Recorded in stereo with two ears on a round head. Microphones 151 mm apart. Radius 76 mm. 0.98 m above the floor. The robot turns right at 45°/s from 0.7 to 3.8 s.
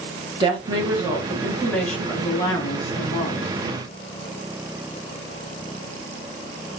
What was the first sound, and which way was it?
A woman speaking, 45° right.